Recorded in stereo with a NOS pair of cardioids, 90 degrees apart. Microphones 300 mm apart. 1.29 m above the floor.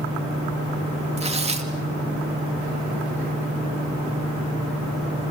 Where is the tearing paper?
20° right, 2.5 m.